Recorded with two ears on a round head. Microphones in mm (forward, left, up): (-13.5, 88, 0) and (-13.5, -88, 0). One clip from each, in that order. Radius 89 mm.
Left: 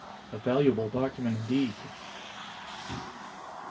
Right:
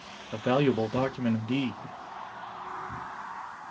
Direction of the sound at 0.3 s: 35° right (ahead or behind).